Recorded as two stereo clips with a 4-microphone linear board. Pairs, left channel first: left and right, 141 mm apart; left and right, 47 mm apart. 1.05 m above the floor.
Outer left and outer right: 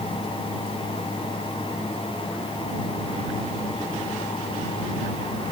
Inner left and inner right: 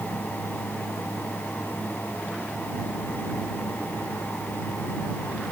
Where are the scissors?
I don't hear scissors.